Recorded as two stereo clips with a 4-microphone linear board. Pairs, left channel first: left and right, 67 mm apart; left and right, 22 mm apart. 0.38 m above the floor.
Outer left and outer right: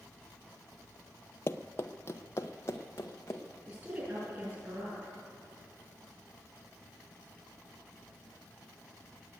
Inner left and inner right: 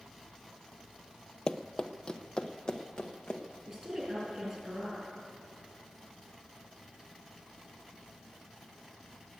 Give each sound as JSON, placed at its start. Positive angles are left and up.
{"t": 1.5, "sound": "running footsteps", "side_deg": 40, "distance_m": 0.6}
{"t": 3.7, "sound": "a woman speaking", "side_deg": -30, "distance_m": 7.0}